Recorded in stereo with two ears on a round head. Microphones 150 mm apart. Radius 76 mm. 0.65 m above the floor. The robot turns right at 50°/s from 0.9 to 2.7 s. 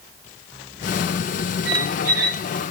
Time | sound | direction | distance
1.6 | a squeak | 80° right | 0.8 m